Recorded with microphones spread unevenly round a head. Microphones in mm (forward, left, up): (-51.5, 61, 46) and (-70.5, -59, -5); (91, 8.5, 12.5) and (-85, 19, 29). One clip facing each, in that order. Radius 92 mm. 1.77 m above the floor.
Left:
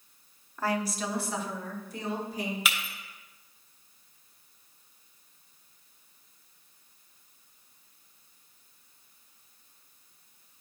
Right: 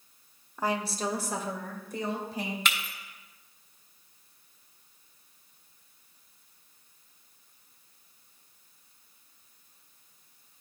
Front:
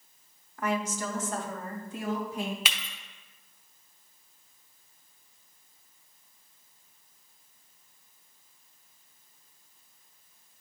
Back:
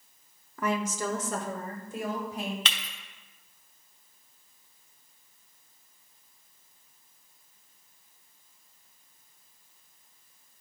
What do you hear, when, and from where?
0.6 s a woman speaking: straight behind, 0.8 m; by 2.5 s 130° right, 2.5 m
2.6 s breaking glass: 80° left, 0.9 m